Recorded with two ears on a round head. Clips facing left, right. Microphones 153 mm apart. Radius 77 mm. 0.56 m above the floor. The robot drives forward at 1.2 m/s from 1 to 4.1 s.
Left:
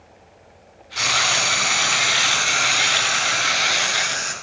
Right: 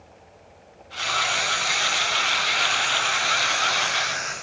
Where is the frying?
85° left, 3 m; by 4.3 s 40° left (ahead or behind), 4.5 m.